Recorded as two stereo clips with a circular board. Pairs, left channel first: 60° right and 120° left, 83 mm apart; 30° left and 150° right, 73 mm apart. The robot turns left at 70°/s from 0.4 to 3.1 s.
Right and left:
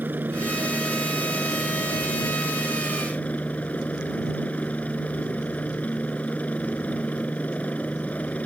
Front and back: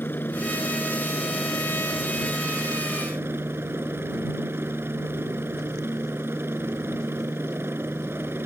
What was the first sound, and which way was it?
A helicopter, 65° left.